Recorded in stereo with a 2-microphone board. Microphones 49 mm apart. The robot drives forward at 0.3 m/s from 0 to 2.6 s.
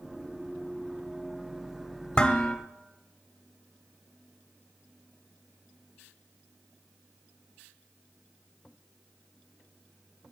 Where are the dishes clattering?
20° left (ahead or behind), 0.6 m.